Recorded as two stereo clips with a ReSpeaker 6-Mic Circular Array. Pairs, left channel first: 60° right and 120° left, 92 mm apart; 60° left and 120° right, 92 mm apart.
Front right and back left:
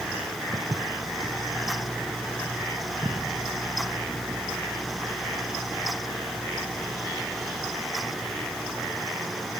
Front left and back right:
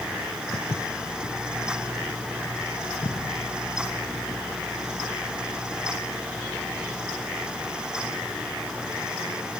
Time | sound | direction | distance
0.5 | footsteps | 70° left | 1.1 m